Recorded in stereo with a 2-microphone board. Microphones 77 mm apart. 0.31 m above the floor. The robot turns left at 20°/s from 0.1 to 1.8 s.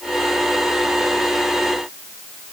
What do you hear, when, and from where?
Only background noise.